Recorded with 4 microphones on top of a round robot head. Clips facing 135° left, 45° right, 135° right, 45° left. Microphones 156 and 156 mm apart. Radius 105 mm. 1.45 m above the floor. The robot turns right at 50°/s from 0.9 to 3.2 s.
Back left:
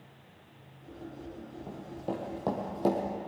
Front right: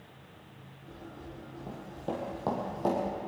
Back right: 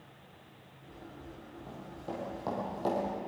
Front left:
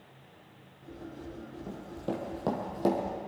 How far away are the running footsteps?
About 1.7 m.